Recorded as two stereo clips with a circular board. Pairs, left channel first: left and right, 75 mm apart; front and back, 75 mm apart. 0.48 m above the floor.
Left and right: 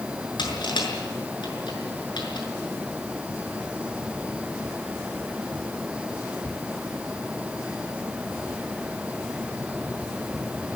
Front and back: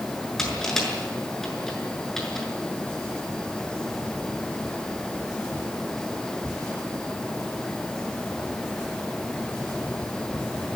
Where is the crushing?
85° left, 6.5 m.